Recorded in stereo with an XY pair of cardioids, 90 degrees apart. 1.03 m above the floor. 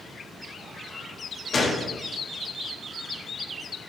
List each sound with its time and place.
1.5 s a gunshot: 40° left, 1.3 m